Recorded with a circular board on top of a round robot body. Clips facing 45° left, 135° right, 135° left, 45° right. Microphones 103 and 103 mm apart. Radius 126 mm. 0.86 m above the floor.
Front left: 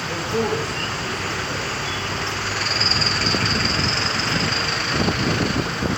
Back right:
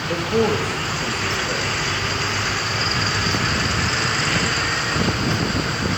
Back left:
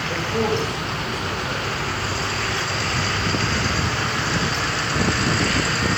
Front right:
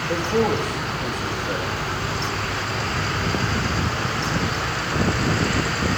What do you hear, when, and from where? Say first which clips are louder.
0.1 s a man speaking: back right 4 dB, front right 2 dB; 120° right, 1.4 m